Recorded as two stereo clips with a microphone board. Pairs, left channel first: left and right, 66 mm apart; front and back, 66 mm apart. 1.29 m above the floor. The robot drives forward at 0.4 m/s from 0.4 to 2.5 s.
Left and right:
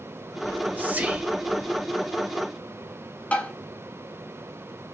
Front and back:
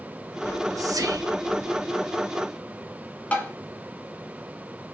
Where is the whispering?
145° right, 0.6 m; by 1.9 s 165° right, 1.1 m.